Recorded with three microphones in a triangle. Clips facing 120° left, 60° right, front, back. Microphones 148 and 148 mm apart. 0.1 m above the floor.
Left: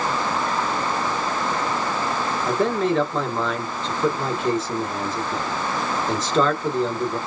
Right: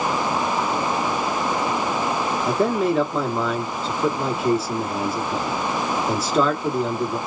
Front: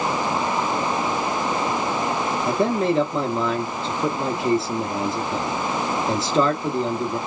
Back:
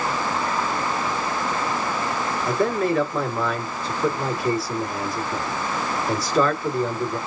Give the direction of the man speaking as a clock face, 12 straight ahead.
12 o'clock.